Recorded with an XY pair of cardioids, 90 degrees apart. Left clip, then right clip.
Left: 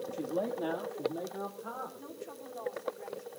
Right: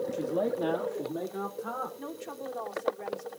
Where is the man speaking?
20° right, 1.7 m; by 1.9 s 35° right, 3.5 m.